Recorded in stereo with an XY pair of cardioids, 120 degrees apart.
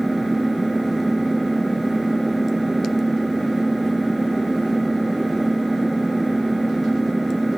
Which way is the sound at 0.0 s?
10° right.